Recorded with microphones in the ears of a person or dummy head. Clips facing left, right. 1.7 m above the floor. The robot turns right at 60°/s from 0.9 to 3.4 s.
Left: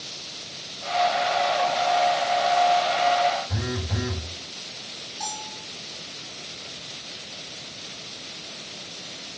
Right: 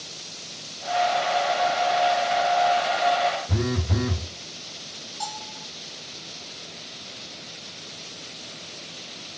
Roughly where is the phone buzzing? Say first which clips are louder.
Right 4 dB; right.